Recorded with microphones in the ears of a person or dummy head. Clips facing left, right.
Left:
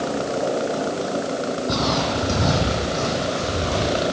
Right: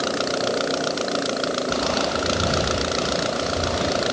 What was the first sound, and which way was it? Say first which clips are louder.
Footsteps: left 1 dB; 60° left (ahead or behind).